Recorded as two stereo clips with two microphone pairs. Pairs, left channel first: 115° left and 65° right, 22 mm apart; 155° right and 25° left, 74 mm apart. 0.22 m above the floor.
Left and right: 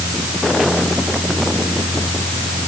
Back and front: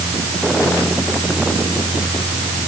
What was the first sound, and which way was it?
Only background noise.